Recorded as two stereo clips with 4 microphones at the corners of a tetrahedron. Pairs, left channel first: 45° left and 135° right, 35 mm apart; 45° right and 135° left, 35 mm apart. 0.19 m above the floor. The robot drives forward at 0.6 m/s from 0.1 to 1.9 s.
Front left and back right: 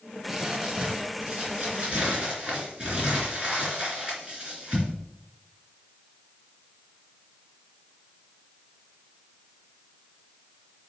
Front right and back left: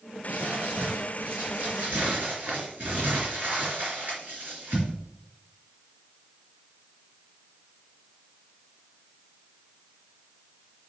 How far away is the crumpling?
About 2.5 m.